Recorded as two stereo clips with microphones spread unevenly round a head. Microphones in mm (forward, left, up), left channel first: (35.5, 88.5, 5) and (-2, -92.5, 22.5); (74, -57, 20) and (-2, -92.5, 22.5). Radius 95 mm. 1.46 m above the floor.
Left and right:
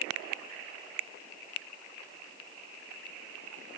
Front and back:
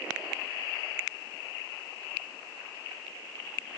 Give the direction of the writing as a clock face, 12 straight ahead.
No writing in this recording.